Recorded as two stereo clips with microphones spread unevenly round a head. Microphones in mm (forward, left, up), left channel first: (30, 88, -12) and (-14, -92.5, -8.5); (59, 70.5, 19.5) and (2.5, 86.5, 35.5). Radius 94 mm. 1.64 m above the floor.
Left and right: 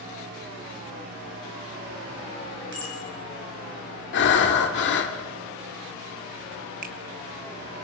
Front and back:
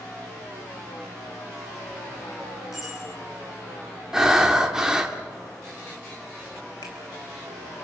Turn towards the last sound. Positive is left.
turn(degrees=-60)